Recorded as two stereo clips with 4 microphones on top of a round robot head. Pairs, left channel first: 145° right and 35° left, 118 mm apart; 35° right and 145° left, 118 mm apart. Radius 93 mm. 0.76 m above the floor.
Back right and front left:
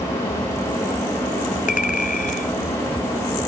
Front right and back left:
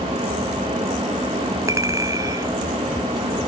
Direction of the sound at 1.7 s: 150° right.